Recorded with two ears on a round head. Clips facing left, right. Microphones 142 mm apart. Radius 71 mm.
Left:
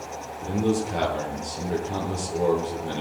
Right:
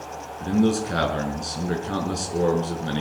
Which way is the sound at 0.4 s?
75° right (ahead or behind).